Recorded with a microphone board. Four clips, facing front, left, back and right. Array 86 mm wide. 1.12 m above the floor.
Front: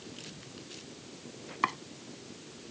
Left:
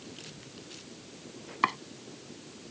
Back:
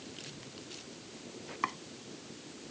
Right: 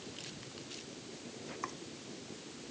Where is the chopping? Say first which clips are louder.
Left 16 dB, front 5 dB; 70° left.